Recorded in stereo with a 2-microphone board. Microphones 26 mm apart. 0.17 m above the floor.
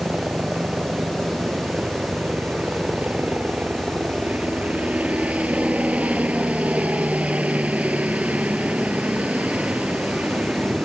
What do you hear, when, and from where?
0.0 s a helicopter: 60° right (ahead or behind)